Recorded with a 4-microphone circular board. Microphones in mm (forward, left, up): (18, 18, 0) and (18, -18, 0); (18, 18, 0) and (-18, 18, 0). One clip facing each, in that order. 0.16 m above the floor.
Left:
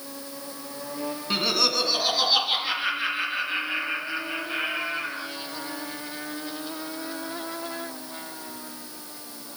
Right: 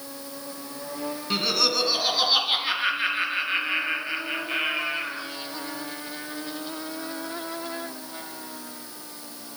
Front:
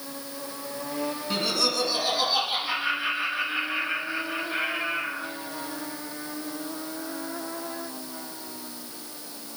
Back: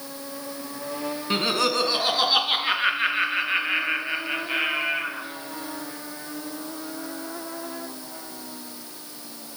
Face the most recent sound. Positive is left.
turn(degrees=-155)